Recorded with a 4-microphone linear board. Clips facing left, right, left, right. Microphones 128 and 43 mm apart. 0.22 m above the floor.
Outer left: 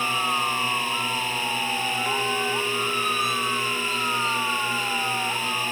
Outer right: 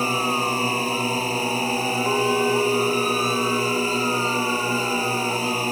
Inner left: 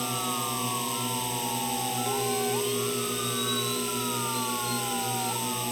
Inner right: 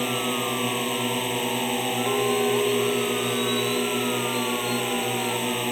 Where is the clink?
30° right (ahead or behind).